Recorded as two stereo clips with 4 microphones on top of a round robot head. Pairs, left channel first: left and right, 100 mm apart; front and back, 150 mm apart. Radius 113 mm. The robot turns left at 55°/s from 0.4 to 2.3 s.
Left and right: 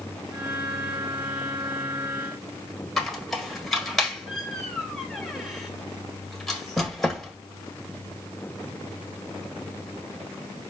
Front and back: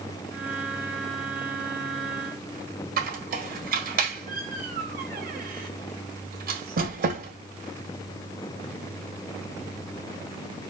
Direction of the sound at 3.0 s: 175° left.